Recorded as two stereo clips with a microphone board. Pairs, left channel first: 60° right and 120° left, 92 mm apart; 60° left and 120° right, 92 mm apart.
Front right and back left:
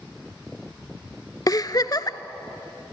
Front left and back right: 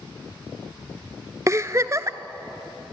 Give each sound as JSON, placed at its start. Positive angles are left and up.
{"t": 1.5, "sound": "a giggle", "azimuth_deg": -80, "distance_m": 0.8}